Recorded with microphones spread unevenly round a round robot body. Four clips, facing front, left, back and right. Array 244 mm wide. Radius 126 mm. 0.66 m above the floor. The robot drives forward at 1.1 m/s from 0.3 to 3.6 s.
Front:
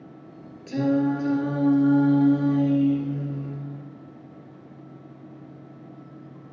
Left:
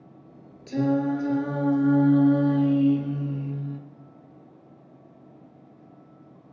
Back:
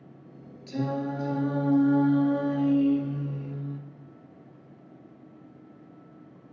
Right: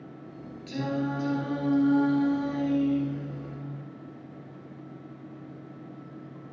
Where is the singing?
40° left, 4.5 m; by 3.8 s 85° left, 2.5 m.